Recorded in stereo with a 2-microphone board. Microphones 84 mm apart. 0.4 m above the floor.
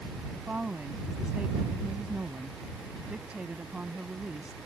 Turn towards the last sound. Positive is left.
turn(degrees=-15)  # may be behind; listen again after turning